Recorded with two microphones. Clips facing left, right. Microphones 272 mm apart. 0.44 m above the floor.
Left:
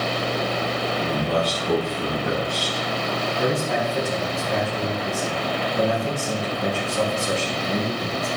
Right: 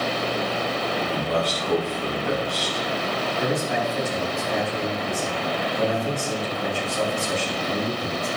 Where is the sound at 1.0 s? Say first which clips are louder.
Left 3 dB; 75° left (ahead or behind), 5.5 m.